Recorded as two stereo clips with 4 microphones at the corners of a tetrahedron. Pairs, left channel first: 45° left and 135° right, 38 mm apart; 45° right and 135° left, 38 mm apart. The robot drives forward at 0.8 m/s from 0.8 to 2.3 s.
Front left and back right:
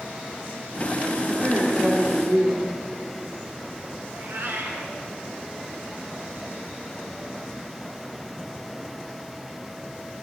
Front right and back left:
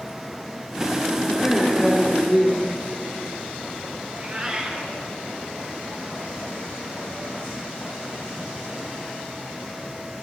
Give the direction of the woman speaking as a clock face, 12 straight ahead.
4 o'clock.